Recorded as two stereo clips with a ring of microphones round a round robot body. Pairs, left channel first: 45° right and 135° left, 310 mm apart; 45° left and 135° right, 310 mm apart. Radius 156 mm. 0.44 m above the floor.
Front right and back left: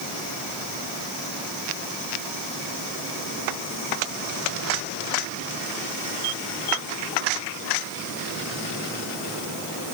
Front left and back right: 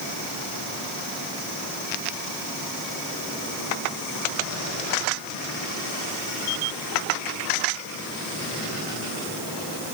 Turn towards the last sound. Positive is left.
No sound to turn to.